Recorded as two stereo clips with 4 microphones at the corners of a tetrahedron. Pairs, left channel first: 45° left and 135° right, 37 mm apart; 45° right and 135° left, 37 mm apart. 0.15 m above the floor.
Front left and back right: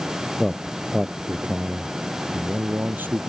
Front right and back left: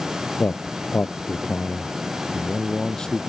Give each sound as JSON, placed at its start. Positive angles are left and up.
{"t": 0.4, "sound": "a man speaking", "azimuth_deg": -40}